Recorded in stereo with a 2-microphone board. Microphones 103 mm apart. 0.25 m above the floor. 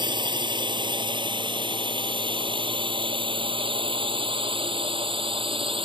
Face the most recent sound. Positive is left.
turn(degrees=-70)  # may be behind; listen again after turning